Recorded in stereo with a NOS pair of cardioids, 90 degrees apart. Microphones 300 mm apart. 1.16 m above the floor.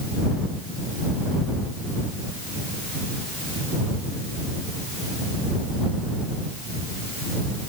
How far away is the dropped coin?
I don't hear a dropped coin.